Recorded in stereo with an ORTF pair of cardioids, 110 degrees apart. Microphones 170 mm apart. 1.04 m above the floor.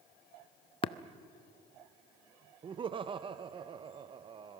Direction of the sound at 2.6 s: 30° right.